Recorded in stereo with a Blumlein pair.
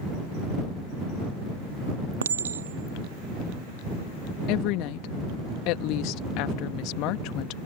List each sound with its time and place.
2.2 s a clink: 65° right
4.5 s a woman speaking: 40° left